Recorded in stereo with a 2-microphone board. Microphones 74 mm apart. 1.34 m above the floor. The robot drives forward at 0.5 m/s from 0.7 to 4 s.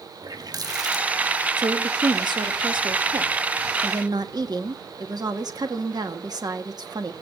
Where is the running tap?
60° right (ahead or behind), 1.5 m; by 1.5 s 70° right (ahead or behind), 1.4 m.